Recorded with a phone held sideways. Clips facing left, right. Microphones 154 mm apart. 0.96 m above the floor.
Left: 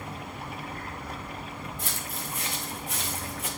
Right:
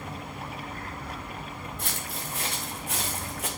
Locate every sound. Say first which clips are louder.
1.8 s footsteps: even; 65° right (ahead or behind), 4.5 m; by 3.5 s 75° right (ahead or behind), 3.5 m